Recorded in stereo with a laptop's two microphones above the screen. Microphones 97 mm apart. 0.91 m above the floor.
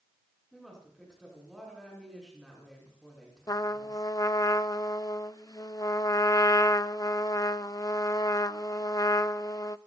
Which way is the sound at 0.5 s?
Centre (ahead or behind).